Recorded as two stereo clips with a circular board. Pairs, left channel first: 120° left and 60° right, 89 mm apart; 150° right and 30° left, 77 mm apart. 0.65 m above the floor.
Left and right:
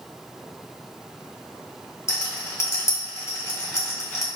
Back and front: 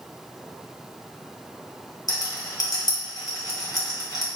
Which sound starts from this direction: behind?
A rattle, at 2.1 s.